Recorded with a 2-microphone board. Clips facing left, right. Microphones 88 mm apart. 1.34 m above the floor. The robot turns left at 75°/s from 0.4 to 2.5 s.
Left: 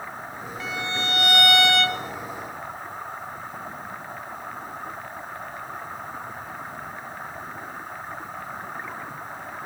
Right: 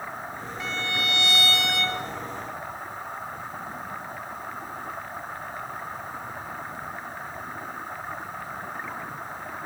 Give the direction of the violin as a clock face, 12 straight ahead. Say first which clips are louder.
Left 1 dB; 6 o'clock.